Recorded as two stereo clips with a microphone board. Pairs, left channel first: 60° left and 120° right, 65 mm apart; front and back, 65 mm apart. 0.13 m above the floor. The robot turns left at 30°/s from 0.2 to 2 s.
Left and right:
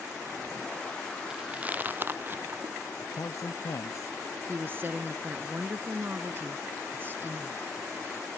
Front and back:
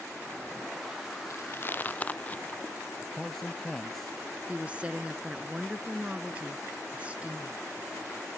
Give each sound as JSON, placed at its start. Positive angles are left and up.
{"t": 1.3, "sound": "chewing", "azimuth_deg": -40}
{"t": 3.0, "sound": "a man speaking", "azimuth_deg": 85}
{"t": 4.5, "sound": "a woman speaking", "azimuth_deg": -125}